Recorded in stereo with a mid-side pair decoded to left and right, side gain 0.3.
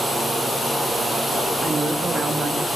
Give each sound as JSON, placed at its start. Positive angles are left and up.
{"t": 1.6, "sound": "a woman speaking", "azimuth_deg": -45, "distance_m": 3.0}